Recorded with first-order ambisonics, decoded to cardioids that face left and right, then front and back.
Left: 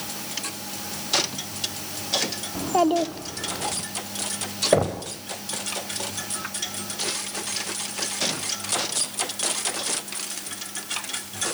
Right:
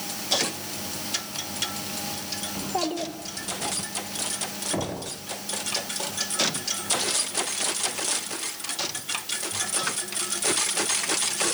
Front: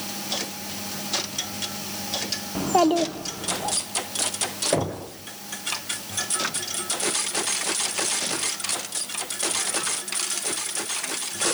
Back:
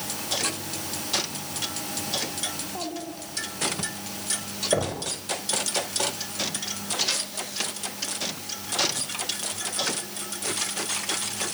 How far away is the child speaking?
About 1.0 m.